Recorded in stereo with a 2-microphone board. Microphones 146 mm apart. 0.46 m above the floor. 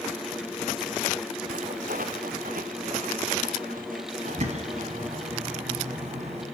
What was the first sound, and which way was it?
Footsteps, 70° right (ahead or behind).